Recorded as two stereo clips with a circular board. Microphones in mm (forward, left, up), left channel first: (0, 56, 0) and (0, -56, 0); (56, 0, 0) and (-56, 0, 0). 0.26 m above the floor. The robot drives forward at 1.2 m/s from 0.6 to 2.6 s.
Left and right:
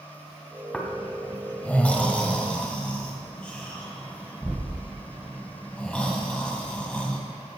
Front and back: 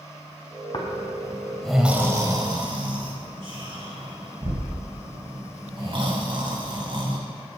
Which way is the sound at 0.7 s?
10° left.